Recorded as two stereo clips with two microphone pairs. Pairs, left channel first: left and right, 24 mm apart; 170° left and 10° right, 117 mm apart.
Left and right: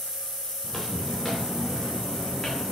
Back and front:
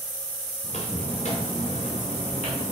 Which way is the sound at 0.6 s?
165° left.